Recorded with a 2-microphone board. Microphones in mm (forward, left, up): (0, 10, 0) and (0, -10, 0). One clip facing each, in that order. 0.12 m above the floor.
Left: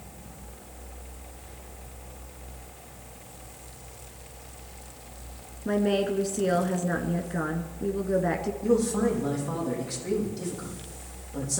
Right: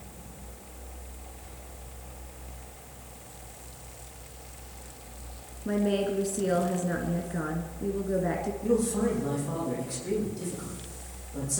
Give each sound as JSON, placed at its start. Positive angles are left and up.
{"t": 5.7, "sound": "a woman speaking", "side_deg": 20, "distance_m": 1.2}
{"t": 8.6, "sound": "a man speaking", "side_deg": 25, "distance_m": 6.0}